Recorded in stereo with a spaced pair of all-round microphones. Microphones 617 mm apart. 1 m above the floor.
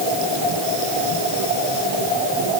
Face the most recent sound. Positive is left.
No sound to turn to.